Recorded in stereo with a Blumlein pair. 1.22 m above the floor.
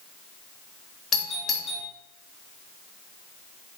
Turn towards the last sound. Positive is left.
turn(degrees=20)